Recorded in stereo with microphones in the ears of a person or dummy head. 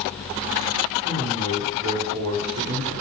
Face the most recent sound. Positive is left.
turn(degrees=-80)